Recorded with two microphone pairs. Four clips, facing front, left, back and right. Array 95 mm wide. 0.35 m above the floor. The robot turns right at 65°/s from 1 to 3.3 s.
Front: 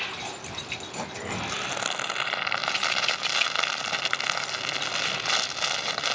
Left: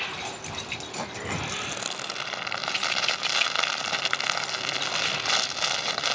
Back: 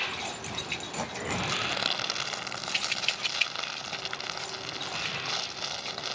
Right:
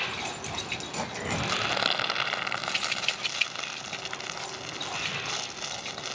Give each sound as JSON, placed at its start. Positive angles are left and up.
{"t": 1.3, "sound": "crumpling", "azimuth_deg": -95}